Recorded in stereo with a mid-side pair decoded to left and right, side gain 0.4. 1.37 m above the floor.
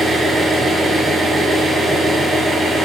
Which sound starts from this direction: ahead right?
An engine running, at 0.0 s.